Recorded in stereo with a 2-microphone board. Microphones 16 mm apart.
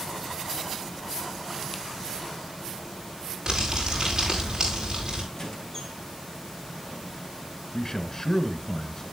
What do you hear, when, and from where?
3.5 s crumpling: 30° right (ahead or behind), 8 m
5.3 s a squeak: 40° left (ahead or behind), 4.5 m
7.7 s a man speaking: 35° left (ahead or behind), 1.9 m